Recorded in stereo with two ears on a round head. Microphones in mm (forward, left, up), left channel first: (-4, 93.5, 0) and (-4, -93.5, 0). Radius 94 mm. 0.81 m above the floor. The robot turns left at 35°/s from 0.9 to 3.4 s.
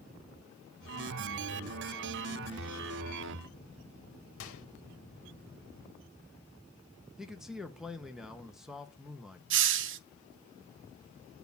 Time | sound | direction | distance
4.4 | a microwave | 70° left (ahead or behind) | 1.3 m
7.2 | a man speaking | centre (ahead or behind) | 0.8 m
9.5 | a hiss | 60° right (ahead or behind) | 0.6 m